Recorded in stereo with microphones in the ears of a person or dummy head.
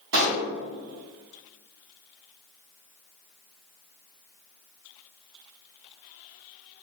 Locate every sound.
0.1 s a pop: 75° right (ahead or behind), 1.7 m